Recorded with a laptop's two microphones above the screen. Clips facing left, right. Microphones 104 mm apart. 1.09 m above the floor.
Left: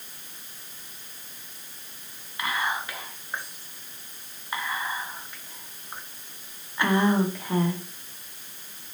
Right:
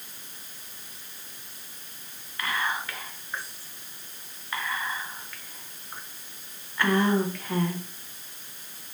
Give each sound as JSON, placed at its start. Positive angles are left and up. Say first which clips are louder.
{"t": 2.4, "sound": "whispering", "louder": "left 1 dB", "side_deg": 20, "distance_m": 0.8}